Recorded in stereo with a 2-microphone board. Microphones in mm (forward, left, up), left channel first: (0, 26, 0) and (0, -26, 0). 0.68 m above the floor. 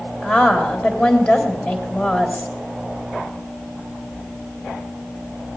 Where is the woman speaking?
30° left (ahead or behind), 3 m.